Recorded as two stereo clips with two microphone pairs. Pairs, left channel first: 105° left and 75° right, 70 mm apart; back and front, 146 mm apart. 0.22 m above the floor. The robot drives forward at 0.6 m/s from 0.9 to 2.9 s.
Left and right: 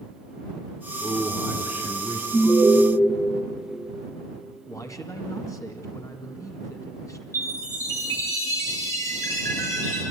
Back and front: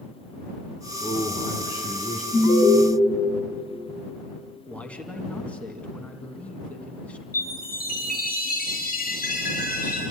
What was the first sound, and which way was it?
A man speaking, 120° right.